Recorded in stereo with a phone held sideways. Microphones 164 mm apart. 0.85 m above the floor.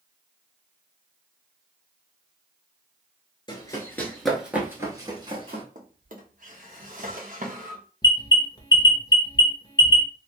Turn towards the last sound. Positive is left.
turn(degrees=25)  # may be behind; listen again after turning